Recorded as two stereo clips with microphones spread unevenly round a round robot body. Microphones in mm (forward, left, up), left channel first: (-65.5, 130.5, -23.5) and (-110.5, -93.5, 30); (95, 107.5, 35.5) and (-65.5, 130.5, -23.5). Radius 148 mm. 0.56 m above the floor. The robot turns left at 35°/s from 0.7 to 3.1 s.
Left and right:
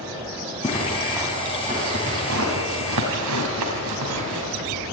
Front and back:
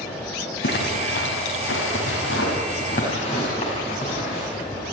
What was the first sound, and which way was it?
A zipper, straight ahead.